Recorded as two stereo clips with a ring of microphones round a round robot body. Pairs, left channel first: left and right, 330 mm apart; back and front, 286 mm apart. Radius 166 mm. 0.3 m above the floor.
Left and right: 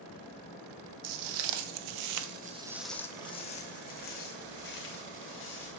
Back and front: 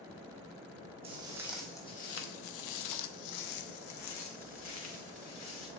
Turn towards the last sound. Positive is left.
turn(degrees=145)